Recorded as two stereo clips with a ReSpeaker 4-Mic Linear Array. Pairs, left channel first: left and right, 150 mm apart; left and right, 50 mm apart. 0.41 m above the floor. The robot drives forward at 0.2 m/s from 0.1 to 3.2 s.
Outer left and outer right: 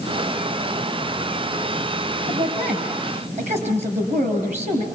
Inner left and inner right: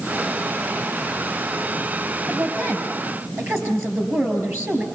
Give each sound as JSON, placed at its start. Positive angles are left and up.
{"t": 2.3, "sound": "a woman speaking", "side_deg": -50, "distance_m": 7.0}